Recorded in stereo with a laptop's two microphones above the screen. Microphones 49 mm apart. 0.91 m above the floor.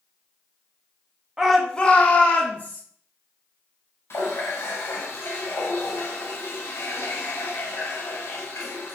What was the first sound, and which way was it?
A shout, 10° right (ahead or behind).